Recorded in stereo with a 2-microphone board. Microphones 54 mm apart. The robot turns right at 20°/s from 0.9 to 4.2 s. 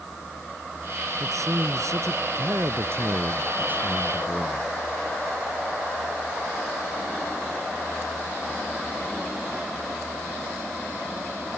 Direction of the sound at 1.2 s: 85° right.